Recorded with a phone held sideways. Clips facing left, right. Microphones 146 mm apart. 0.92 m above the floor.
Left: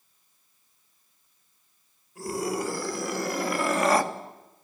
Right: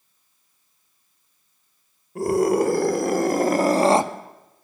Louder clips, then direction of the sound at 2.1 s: Right 11 dB; 65° right (ahead or behind).